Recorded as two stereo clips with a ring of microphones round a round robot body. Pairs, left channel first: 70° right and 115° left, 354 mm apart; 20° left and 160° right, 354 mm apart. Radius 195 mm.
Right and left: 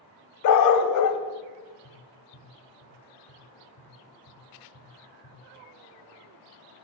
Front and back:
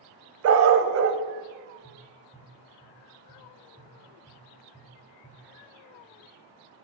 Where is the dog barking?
105° right, 0.7 m.